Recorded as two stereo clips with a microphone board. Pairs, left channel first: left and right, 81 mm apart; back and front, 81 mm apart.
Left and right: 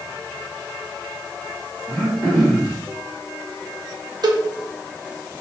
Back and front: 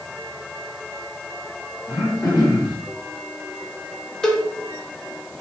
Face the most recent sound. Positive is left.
turn(degrees=-100)